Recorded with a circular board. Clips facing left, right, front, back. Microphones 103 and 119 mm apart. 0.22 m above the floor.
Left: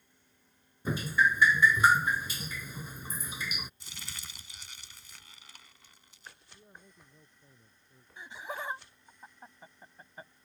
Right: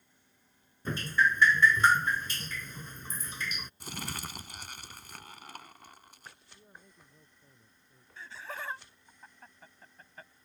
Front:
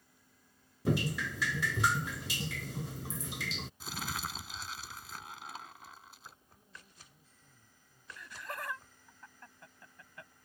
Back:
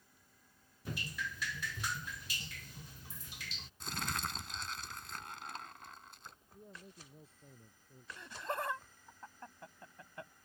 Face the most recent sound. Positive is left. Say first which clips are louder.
# left 2 dB, back 4 dB
turn(degrees=150)